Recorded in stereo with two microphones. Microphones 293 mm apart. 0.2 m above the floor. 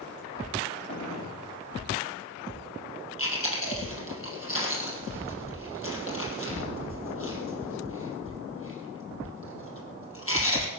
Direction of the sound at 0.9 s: 75° left (ahead or behind).